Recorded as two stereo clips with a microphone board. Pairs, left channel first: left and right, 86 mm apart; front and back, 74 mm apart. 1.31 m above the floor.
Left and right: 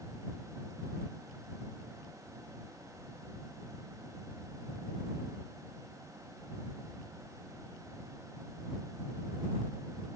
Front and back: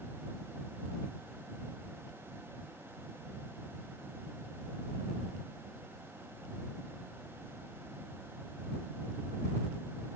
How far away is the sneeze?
I don't hear a sneeze.